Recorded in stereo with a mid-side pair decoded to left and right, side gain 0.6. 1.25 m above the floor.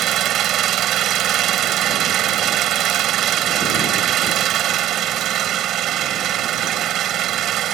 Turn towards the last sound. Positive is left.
turn(degrees=-60)